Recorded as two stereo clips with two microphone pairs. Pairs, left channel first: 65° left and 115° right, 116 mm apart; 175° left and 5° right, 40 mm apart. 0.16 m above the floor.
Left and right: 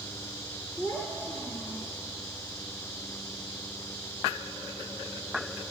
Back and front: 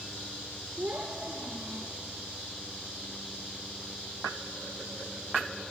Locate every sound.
0.8 s a child speaking: 5° left, 2.5 m